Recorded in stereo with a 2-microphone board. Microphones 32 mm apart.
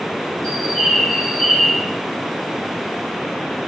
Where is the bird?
25° left (ahead or behind), 2.5 m.